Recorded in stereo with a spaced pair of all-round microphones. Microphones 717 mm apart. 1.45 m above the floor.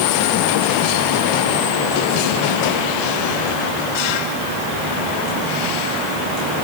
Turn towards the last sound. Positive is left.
No sound to turn to.